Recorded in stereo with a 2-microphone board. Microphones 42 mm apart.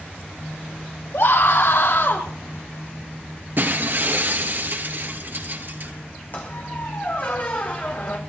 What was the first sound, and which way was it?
A scream, 75° left (ahead or behind).